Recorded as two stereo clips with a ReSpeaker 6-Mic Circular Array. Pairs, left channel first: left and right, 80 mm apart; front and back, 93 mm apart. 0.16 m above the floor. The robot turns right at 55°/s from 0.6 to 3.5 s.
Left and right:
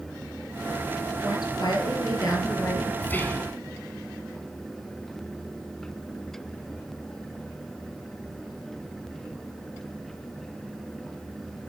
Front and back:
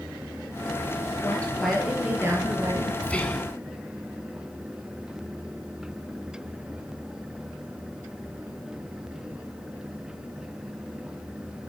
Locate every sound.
1.2 s a woman speaking: 60° left, 3 m; by 2.9 s 155° left, 3 m
3.0 s whispering: 55° left, 1.2 m; by 3.5 s 80° left, 1.2 m